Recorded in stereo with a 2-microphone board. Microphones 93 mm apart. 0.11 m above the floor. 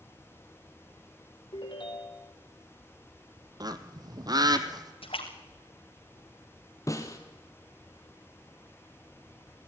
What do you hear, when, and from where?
1.5 s a ringtone: 55° left (ahead or behind), 2.5 m
3.6 s a bird: 45° right (ahead or behind), 1.1 m
5.0 s a splash: 80° left, 3.5 m
6.9 s a snare drum: 35° left (ahead or behind), 2 m